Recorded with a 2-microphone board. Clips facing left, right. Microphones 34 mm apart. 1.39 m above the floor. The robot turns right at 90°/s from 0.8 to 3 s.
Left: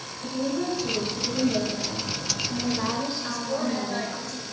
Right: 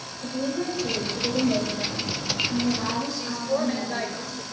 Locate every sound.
0.2 s a woman speaking: 160° right, 2.5 m; by 4.2 s 40° left, 2.5 m
3.2 s a woman speaking: 20° right (ahead or behind), 1.3 m